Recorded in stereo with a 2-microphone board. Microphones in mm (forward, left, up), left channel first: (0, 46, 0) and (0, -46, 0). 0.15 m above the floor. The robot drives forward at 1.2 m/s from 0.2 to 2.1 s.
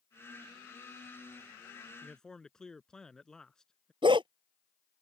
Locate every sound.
2.0 s a man speaking: 5° left (ahead or behind)
4.0 s a dog barking: 60° right (ahead or behind)